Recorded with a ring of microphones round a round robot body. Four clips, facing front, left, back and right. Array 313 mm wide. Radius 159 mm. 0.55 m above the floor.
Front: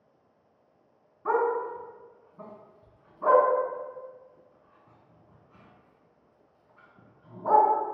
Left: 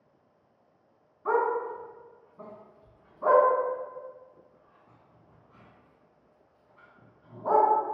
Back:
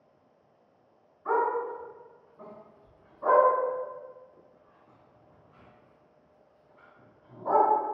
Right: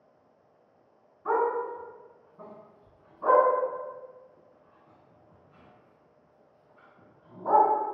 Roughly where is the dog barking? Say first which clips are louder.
Even, front 1 dB; ahead.